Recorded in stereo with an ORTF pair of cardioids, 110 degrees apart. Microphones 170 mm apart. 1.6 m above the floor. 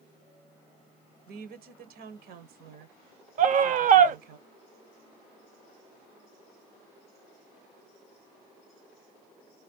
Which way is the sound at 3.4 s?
50° right.